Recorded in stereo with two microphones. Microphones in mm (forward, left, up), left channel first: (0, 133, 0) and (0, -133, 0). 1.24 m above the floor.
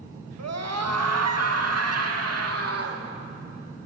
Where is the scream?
85° right, 1.3 m; by 3.0 s 65° right (ahead or behind), 2.5 m.